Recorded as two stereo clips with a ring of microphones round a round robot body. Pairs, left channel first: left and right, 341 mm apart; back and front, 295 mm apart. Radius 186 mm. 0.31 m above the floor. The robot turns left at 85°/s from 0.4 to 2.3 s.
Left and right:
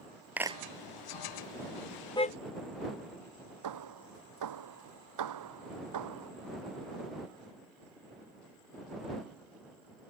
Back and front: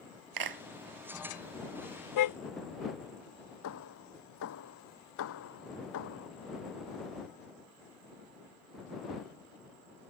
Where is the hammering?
130° right.